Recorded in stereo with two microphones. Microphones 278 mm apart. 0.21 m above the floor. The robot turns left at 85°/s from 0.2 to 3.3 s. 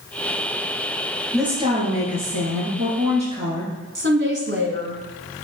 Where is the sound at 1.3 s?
5° left, 4 m; by 3.7 s 165° right, 4 m.